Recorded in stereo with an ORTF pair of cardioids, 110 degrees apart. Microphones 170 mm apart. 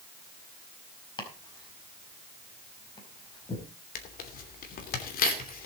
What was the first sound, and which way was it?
Chopping, 25° left.